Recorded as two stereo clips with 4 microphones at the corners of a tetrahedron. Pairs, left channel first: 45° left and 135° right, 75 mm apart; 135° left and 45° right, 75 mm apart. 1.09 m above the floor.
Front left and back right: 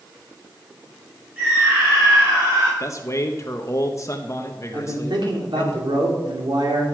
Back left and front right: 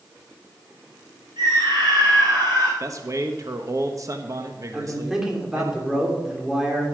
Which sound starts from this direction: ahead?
A man speaking, at 2.8 s.